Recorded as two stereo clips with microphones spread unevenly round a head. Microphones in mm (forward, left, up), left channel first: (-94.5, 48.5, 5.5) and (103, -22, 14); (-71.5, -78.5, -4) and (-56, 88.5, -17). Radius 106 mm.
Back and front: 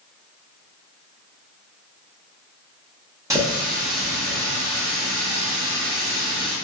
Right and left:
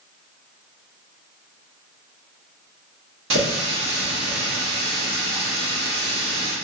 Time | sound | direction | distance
3.3 | a running tap | 55° left | 1.1 m